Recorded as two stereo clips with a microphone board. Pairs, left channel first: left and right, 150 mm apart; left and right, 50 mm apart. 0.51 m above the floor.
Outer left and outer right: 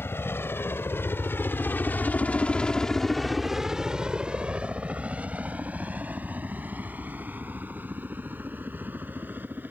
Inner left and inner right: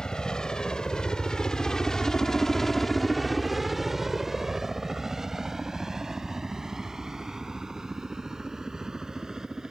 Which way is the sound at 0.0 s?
15° left (ahead or behind).